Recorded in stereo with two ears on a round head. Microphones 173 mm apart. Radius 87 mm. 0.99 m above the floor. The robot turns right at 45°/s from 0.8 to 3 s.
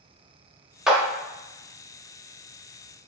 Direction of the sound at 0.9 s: 5° right (ahead or behind).